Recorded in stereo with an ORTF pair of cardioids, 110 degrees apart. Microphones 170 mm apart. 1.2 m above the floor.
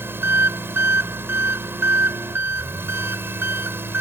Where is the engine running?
15° right.